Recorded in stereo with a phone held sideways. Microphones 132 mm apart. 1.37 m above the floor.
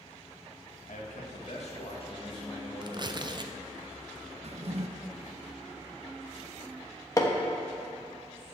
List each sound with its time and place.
0.9 s a man speaking: 85° left, 1.9 m; by 3.5 s 20° left (ahead or behind), 3 m
2.8 s tearing paper: 35° right (ahead or behind), 0.5 m
4.4 s a drawer: 55° right (ahead or behind), 0.7 m
7.2 s hammering: 30° left (ahead or behind), 1.2 m